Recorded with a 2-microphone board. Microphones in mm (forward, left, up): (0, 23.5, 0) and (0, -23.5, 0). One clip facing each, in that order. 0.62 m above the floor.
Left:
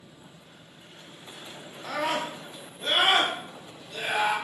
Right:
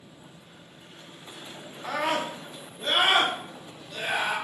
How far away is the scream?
About 0.6 m.